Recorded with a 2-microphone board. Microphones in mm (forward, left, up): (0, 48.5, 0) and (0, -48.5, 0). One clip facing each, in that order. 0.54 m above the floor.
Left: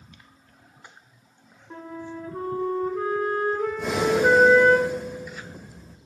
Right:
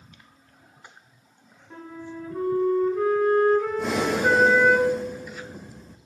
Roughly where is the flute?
Left.